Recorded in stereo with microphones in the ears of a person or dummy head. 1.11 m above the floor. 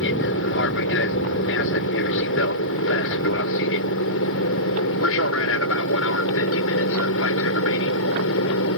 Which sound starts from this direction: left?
An aircraft, at 0.0 s.